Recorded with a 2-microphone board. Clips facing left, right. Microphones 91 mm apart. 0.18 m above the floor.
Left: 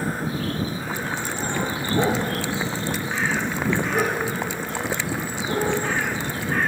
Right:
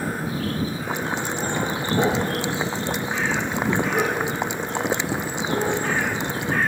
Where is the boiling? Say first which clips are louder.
Right 2 dB; 20° right (ahead or behind).